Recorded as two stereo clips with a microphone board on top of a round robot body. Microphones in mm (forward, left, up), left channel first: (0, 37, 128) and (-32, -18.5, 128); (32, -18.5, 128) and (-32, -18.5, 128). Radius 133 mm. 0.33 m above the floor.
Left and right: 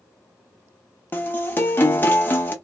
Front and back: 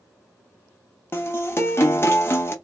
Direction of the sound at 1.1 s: 25° left.